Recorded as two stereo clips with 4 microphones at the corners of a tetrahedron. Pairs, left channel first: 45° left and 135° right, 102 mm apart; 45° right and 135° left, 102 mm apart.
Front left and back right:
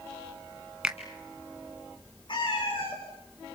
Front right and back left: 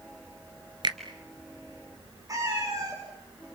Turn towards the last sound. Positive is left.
turn(degrees=80)